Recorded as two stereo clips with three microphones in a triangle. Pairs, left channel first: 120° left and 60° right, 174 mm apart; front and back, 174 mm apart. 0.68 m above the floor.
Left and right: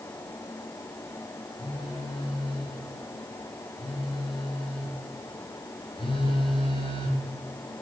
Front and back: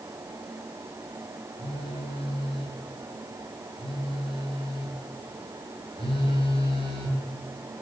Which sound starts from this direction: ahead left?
A phone buzzing, at 1.6 s.